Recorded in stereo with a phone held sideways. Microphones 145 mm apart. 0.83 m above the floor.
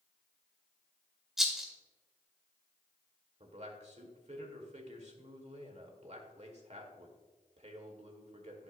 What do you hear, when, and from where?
1.4 s a rattle: 5° right (ahead or behind), 1.7 m
3.4 s a man speaking: 50° right (ahead or behind), 1.7 m